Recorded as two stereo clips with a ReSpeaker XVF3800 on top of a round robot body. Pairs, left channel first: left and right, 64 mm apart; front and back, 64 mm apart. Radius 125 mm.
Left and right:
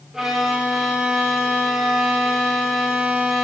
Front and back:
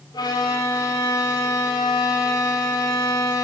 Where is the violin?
5° right, 1.5 m.